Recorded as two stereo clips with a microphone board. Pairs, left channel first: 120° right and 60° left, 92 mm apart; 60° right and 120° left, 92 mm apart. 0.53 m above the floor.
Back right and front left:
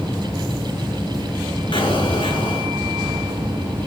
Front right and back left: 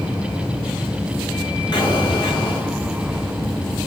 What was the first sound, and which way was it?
An explosion, 100° right.